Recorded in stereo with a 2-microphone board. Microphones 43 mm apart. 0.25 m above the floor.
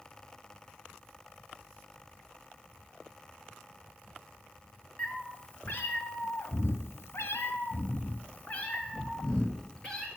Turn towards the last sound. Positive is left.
turn(degrees=15)  # may be behind; listen again after turning